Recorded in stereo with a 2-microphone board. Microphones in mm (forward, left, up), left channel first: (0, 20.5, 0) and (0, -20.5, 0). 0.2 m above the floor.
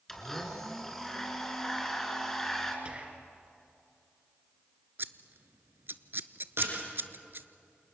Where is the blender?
10° left (ahead or behind), 3 m.